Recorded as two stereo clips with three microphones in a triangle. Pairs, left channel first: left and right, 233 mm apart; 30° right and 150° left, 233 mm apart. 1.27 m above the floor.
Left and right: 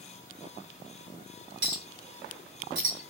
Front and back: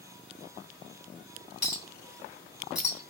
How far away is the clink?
About 2 m.